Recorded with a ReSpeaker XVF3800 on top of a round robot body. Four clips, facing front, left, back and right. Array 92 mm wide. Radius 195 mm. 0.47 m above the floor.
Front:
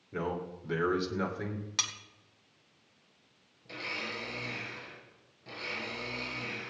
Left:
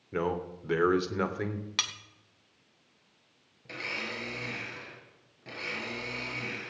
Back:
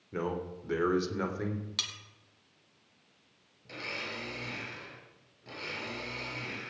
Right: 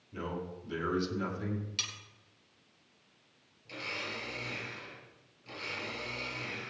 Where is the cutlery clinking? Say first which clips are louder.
Left 7 dB, front 3 dB; 75° left, 1.3 m.